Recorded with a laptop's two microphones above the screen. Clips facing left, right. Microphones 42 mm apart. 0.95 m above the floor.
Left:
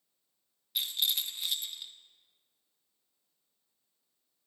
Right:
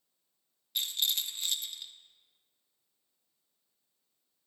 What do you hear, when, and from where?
0.8 s a rattle: 5° left (ahead or behind), 0.6 m